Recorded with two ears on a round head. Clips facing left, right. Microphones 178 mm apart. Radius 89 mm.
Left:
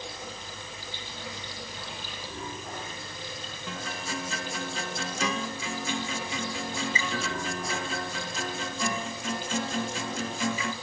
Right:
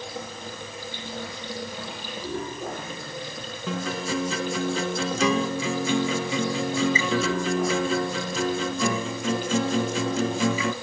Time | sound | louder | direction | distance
0.0 | running water | right 5 dB | 45° right (ahead or behind) | 7.5 m
3.7 | a guitar | right 9 dB | 65° right (ahead or behind) | 0.9 m